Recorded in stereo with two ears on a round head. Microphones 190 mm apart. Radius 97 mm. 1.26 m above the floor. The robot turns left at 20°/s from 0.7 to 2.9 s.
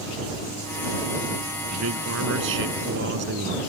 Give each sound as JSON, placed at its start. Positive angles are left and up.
{"t": 1.7, "sound": "a man speaking", "side_deg": -85}